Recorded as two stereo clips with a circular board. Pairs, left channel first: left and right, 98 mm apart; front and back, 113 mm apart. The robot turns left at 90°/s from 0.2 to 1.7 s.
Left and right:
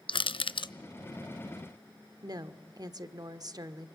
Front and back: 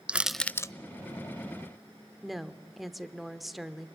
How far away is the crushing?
About 0.5 m.